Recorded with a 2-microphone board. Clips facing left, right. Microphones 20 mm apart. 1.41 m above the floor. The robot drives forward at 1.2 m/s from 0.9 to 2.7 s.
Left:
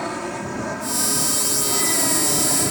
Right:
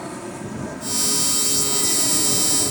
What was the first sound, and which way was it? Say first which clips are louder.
An aircraft: left 5 dB; 30° left (ahead or behind).